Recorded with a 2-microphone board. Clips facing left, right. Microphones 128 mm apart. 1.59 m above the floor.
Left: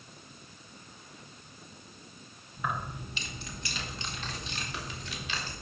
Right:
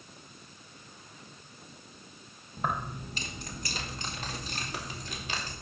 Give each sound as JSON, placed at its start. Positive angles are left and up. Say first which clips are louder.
{"t": 2.6, "sound": "keys jangling", "louder": "right 2 dB", "side_deg": -40, "distance_m": 1.3}